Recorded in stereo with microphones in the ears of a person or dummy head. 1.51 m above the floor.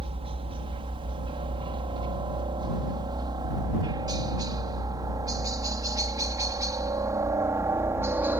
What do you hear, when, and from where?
0.0 s a helicopter: 25° right (ahead or behind); by 8.4 s 10° right (ahead or behind)